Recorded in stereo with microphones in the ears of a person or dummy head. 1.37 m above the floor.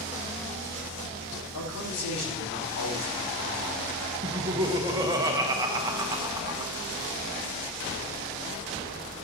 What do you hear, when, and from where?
1.5 s a man speaking: 70° left (ahead or behind), 3 m
4.2 s laughter: 20° right (ahead or behind), 1.1 m